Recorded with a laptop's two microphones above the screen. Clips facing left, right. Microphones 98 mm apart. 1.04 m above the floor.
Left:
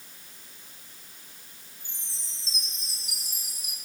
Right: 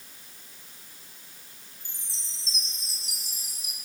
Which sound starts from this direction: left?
A chime, at 1.8 s.